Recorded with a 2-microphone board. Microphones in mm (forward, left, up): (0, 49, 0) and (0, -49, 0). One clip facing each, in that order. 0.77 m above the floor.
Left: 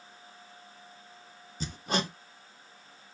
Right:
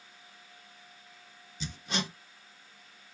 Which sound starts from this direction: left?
Hammering, at 1.6 s.